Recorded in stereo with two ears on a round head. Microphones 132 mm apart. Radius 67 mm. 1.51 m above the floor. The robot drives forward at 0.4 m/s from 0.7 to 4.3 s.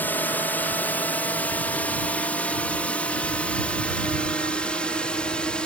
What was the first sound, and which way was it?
A drone, 15° left (ahead or behind).